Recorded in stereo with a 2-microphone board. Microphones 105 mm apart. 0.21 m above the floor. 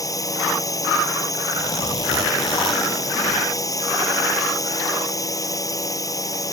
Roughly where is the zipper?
Left.